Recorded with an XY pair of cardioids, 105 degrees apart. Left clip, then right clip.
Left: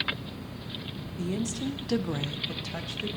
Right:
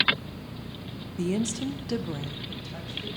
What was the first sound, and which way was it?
A woman speaking, 45° right.